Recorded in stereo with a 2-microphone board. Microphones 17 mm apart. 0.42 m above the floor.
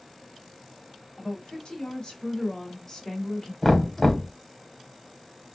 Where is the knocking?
20° left (ahead or behind), 1.0 m.